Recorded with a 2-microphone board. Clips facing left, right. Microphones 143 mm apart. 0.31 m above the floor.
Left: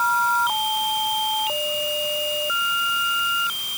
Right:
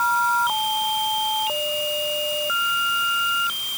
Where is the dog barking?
No dog barking in this recording.